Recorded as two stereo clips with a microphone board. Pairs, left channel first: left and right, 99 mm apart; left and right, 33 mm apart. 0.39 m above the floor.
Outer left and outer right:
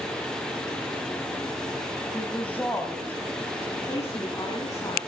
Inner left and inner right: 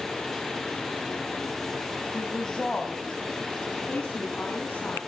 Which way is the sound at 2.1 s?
5° left (ahead or behind).